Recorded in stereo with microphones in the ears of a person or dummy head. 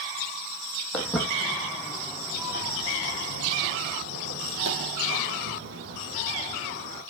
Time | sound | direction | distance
0.9 | footsteps | 5° left (ahead or behind) | 4 m